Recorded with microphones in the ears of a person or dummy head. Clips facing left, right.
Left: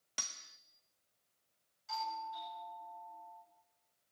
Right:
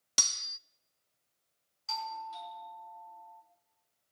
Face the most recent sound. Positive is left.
turn(degrees=-85)